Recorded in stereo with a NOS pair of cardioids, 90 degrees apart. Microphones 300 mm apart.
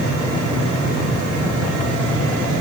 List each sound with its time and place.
Only background noise.